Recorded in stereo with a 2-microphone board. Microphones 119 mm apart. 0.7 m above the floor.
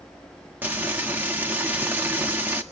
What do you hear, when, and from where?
0.6 s frying: 15° right (ahead or behind), 1.4 m